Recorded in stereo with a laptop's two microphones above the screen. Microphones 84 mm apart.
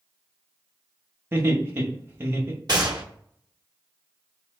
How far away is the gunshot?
About 0.8 m.